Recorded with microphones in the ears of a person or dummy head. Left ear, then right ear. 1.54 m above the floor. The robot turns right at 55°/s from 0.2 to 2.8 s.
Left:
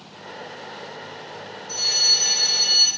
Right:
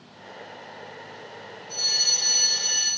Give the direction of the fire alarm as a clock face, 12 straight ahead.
8 o'clock.